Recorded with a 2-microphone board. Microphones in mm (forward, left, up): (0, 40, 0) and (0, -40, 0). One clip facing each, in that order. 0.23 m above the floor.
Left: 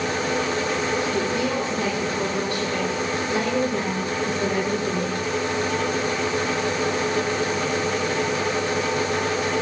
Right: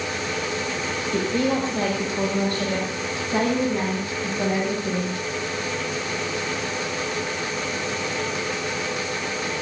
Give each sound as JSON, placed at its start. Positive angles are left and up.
{"t": 1.1, "sound": "a woman speaking", "side_deg": -50, "distance_m": 7.0}